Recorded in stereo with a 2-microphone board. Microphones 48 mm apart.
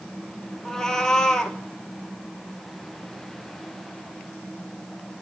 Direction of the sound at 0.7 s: 10° left (ahead or behind).